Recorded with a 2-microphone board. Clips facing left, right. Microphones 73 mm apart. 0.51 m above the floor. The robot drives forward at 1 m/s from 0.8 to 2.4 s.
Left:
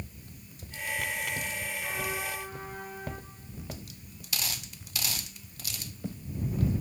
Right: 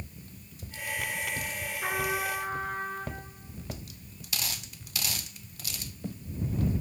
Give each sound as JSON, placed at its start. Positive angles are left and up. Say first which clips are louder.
{"t": 1.8, "sound": "a trumpet", "louder": "right 7 dB", "side_deg": -55, "distance_m": 3.0}